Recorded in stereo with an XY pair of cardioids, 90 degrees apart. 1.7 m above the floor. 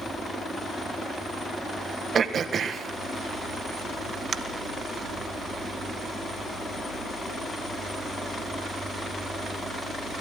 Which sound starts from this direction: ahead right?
Throat clearing, at 2.1 s.